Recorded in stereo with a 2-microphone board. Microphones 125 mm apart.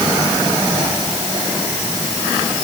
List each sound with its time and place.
Only background noise.